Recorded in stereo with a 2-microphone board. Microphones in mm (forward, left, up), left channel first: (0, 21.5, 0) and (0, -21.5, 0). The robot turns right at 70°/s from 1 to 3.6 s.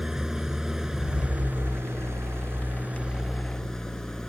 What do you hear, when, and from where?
0.0 s an engine running: 170° right; by 4.3 s 15° left